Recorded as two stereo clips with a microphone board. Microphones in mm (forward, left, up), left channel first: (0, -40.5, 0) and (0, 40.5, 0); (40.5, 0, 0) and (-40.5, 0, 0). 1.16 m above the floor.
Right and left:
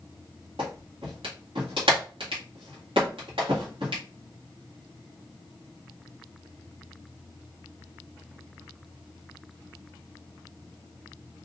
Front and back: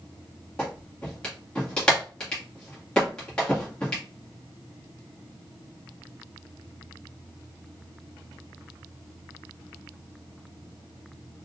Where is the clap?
80° left, 1.8 m.